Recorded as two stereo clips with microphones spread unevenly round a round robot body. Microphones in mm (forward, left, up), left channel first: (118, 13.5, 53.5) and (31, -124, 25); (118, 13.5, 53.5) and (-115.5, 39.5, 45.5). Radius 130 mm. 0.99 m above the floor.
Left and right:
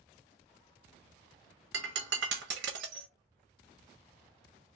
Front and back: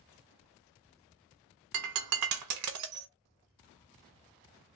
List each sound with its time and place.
1.7 s breaking glass: 165° right, 0.7 m